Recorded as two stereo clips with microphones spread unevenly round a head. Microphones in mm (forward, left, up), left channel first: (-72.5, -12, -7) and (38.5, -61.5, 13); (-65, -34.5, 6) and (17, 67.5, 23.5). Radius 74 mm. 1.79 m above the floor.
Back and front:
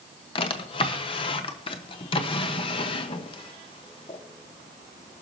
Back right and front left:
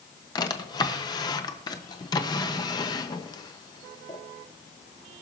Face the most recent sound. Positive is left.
turn(degrees=180)